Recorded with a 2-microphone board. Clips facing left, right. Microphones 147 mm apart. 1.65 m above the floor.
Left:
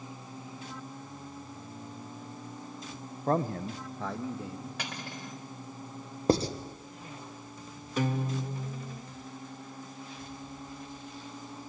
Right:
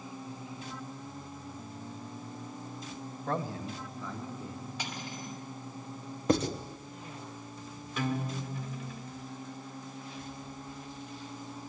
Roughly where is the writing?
Left.